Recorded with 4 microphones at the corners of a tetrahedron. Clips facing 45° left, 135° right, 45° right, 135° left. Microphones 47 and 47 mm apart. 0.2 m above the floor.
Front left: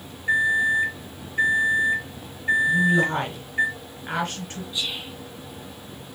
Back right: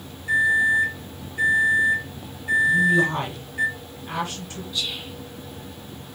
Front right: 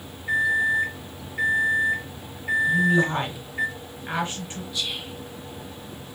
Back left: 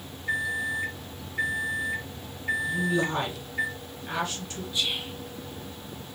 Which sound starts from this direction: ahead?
A woman speaking, at 2.7 s.